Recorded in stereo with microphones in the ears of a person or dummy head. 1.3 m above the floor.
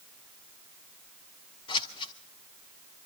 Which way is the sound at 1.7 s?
25° left (ahead or behind).